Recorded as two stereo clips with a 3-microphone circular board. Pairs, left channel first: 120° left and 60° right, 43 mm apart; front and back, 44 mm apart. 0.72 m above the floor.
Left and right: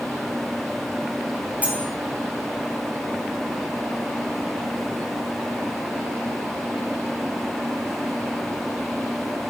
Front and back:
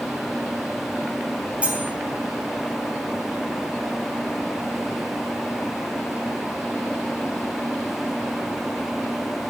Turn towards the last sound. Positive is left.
turn(degrees=-120)